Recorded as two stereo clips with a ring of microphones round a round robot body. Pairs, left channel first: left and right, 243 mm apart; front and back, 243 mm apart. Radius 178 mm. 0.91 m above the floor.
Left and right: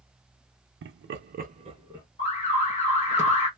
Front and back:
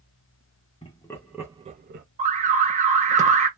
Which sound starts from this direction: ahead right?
Laughter, at 0.8 s.